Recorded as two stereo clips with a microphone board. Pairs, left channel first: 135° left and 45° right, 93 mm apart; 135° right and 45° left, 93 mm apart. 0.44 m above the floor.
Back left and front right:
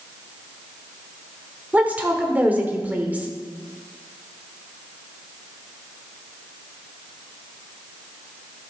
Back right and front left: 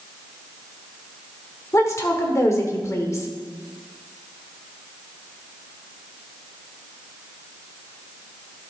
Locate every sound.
1.7 s a woman speaking: 105° right, 1.3 m